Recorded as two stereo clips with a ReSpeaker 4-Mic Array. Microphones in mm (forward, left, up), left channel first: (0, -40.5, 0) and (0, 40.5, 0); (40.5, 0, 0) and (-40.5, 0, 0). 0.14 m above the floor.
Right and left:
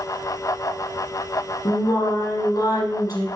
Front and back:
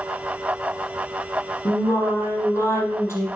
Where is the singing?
50° right, 5 m.